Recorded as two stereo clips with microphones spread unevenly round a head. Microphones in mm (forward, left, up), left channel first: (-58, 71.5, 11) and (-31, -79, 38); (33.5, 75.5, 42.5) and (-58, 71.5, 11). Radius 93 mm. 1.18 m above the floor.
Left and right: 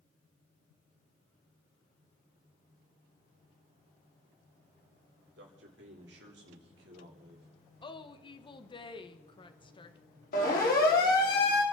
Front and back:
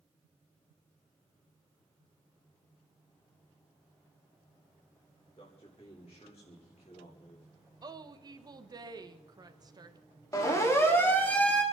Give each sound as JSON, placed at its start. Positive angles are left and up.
{"t": 5.4, "sound": "a man speaking", "azimuth_deg": -55, "distance_m": 4.0}
{"t": 7.8, "sound": "a woman speaking", "azimuth_deg": 150, "distance_m": 1.5}
{"t": 10.3, "sound": "a siren", "azimuth_deg": 60, "distance_m": 4.0}